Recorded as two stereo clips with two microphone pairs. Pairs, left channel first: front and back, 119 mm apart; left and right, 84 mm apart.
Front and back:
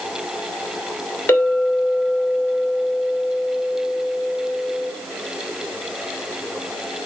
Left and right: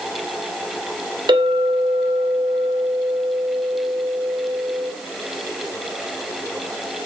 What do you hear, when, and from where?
1.3 s a clink: 70° right, 2.5 m